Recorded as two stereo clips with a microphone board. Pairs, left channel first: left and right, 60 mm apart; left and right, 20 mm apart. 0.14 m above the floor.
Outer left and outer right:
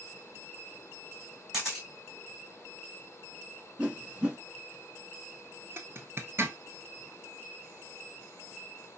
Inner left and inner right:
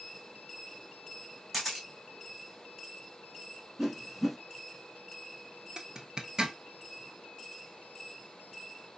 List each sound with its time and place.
1.5 s a camera shutter: 10° right (ahead or behind), 3 m
3.8 s a whoosh: 20° right (ahead or behind), 0.8 m
5.8 s a zipper: 45° right (ahead or behind), 0.7 m